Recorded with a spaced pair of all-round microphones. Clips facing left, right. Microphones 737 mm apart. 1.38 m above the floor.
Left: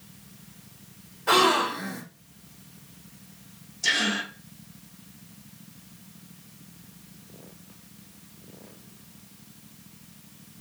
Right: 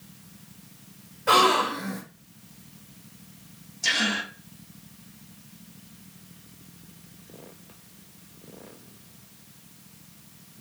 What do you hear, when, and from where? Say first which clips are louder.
1.3 s a gasp: even; 15° right (ahead or behind), 1.4 m
3.8 s a gasp: even; 5° right (ahead or behind), 1.0 m